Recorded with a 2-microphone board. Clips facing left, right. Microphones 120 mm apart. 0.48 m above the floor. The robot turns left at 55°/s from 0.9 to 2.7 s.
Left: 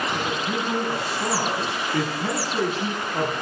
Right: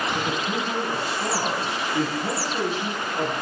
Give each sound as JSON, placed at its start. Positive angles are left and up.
{"t": 0.1, "sound": "a man speaking", "azimuth_deg": 165, "distance_m": 5.0}